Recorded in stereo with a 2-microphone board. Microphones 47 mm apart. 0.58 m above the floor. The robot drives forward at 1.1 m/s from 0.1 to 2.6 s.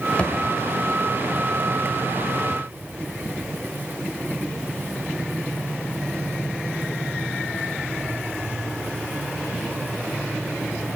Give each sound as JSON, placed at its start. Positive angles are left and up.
{"t": 0.2, "sound": "a thud", "side_deg": 25, "distance_m": 0.9}